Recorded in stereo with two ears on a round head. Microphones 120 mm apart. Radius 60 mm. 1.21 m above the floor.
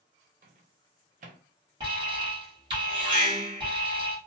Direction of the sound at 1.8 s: 35° right (ahead or behind).